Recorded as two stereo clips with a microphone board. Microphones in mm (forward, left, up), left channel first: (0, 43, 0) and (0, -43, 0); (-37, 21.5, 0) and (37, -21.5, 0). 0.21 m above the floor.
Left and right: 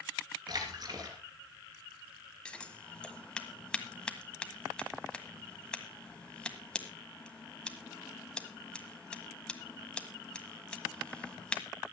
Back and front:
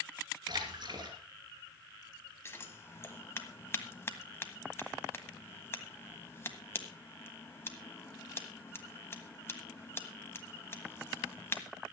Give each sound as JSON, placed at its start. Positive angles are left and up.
{"t": 0.5, "sound": "a splash", "azimuth_deg": -60, "distance_m": 3.0}
{"t": 2.5, "sound": "scissors", "azimuth_deg": 155, "distance_m": 1.6}